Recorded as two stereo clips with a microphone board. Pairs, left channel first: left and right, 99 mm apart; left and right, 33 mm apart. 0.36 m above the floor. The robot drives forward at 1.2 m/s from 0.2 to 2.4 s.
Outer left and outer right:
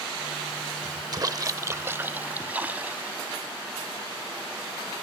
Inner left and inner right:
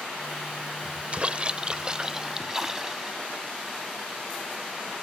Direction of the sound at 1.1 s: 40° right (ahead or behind).